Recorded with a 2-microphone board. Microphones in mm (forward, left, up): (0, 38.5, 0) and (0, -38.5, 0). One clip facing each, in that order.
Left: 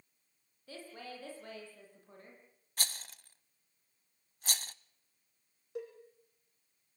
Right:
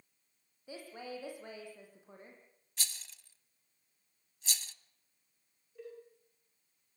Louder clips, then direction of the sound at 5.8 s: Left 6 dB; 75° left (ahead or behind).